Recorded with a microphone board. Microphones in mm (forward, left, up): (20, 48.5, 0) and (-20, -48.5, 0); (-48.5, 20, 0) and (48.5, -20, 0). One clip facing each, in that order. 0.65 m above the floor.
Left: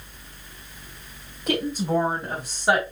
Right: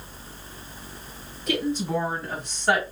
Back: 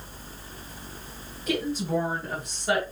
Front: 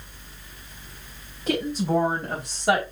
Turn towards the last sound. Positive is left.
turn(degrees=-5)